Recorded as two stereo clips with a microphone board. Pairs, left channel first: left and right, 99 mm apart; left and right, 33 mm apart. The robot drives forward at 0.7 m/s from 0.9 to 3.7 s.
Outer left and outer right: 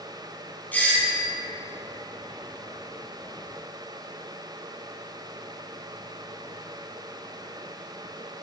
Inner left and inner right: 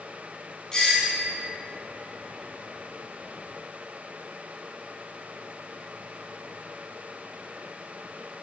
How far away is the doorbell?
About 1.6 m.